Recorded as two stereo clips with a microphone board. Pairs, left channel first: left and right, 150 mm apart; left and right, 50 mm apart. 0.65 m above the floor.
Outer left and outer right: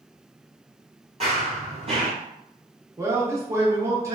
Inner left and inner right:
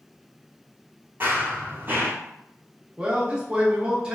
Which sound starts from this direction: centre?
A man speaking, at 3.0 s.